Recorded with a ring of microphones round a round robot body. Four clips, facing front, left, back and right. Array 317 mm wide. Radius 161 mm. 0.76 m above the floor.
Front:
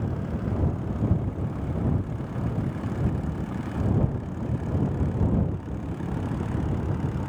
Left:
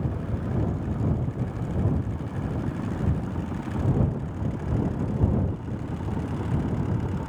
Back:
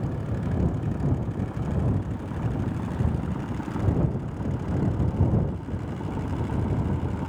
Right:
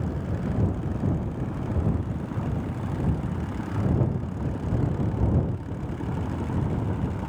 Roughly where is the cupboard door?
No cupboard door in this recording.